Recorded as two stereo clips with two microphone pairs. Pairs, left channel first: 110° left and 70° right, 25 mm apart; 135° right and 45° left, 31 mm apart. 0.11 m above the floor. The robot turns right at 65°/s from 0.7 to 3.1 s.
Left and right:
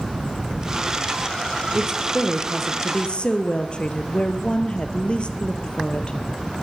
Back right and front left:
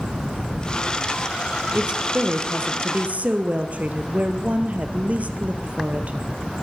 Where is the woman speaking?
15° right, 2.5 m; by 6.2 s 75° left, 2.5 m.